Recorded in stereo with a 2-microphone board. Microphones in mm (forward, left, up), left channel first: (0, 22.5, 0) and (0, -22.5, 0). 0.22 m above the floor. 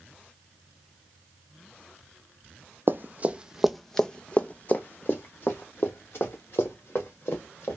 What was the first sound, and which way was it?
Running footsteps, 50° right (ahead or behind).